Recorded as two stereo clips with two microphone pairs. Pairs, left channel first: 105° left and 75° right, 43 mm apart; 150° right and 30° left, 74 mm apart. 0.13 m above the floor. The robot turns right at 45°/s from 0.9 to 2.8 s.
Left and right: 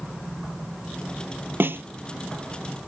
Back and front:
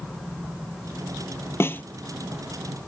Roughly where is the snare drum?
Right.